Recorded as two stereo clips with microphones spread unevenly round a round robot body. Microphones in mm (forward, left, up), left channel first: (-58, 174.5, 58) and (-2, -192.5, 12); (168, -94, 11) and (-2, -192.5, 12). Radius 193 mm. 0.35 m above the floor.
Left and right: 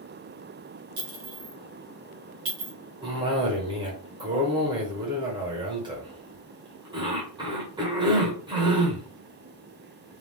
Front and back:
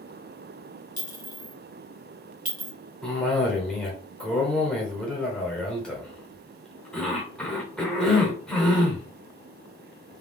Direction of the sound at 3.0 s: 50° right.